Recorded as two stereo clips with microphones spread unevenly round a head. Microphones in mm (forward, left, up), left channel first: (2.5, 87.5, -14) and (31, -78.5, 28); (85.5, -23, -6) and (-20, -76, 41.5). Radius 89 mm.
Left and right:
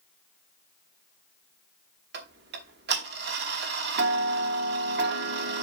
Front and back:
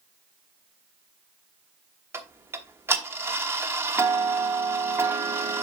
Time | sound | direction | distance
2.1 | ticking | 95° right | 1.1 m